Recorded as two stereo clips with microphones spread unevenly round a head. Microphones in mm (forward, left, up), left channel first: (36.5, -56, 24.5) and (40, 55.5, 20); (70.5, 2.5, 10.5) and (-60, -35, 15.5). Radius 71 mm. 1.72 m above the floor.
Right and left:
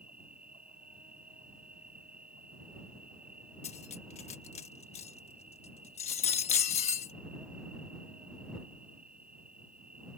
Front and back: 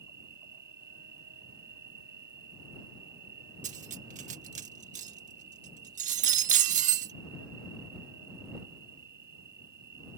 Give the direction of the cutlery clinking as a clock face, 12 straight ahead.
5 o'clock.